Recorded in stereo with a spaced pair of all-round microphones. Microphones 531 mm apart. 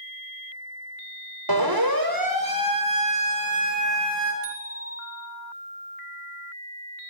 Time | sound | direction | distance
1.5 | a siren | 45° right (ahead or behind) | 5 m
4.4 | a bicycle bell | 75° right (ahead or behind) | 5 m